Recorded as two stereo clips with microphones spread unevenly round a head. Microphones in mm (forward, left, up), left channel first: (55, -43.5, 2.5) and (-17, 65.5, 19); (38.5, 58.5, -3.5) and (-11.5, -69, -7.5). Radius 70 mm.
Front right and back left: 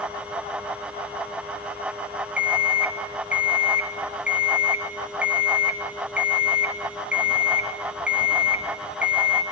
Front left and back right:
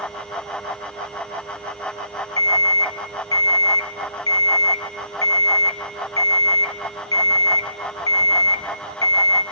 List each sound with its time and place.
2.4 s an alarm clock: 65° left, 1.4 m